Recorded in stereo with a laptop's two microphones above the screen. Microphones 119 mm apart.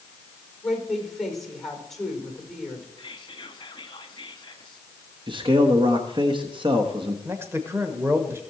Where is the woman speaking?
Centre (ahead or behind), 4.5 m.